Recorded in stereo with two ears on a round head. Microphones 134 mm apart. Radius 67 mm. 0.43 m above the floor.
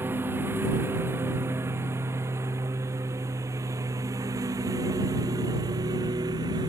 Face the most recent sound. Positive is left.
turn(degrees=-25)  # may be behind; listen again after turning